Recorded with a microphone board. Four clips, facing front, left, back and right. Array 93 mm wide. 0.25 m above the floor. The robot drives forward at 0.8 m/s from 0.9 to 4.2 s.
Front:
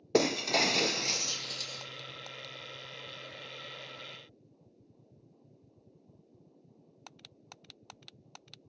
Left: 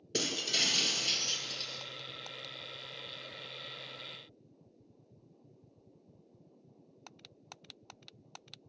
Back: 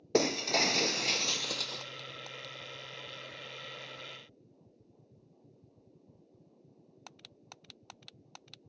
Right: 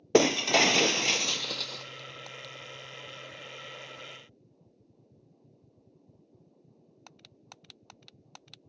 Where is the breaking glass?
85° right, 0.5 m; by 1.9 s 145° right, 0.9 m.